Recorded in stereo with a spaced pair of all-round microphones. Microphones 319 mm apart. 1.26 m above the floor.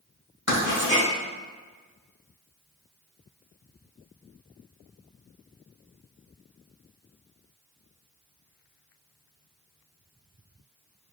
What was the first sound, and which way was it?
Writing, 55° right (ahead or behind).